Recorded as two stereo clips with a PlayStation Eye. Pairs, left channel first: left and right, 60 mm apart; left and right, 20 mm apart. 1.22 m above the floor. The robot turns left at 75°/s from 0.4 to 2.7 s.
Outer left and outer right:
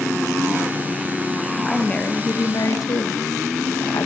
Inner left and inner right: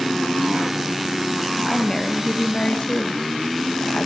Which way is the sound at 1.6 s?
175° left.